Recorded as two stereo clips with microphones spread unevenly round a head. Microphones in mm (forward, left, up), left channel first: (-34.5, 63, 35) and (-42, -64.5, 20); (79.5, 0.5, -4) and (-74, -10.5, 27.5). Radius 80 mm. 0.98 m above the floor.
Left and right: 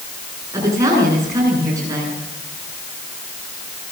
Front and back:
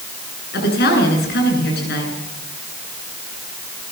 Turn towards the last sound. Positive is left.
turn(degrees=-25)